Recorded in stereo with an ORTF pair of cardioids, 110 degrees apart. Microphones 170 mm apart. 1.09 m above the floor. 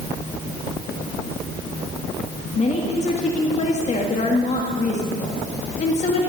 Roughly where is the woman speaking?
Ahead left.